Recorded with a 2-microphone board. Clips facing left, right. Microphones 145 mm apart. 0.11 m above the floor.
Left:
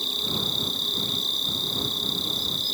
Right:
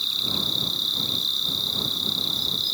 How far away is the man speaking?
I don't hear a man speaking.